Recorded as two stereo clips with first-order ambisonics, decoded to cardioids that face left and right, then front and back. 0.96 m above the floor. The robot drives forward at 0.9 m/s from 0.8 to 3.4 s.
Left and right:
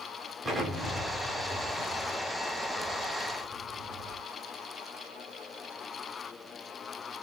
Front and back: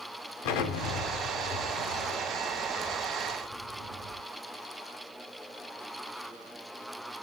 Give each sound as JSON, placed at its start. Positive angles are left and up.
{"t": 0.4, "sound": "an explosion", "azimuth_deg": -10, "distance_m": 2.0}